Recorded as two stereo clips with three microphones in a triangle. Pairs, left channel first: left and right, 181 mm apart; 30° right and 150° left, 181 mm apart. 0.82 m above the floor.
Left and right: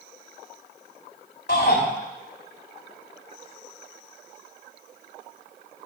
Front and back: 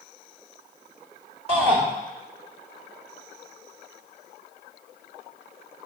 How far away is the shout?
About 1.8 m.